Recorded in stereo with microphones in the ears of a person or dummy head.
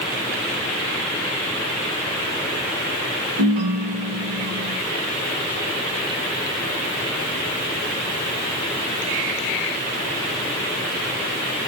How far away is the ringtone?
About 1.0 m.